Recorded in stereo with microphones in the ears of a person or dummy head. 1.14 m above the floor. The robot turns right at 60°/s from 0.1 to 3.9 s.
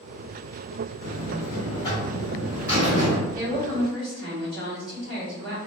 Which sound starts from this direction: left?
A buzzer, at 1.0 s.